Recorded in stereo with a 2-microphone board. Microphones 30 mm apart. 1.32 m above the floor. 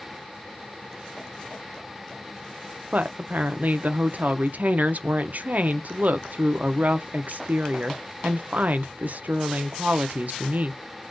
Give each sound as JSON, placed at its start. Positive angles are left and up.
{"t": 2.9, "sound": "a woman speaking", "side_deg": -65, "distance_m": 0.5}